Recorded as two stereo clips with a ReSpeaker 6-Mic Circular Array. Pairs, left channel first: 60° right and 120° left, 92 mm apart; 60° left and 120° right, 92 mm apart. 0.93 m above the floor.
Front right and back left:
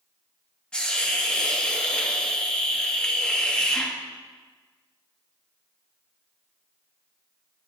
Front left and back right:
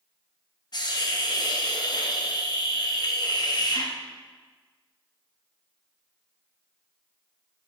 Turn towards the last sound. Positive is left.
turn(degrees=20)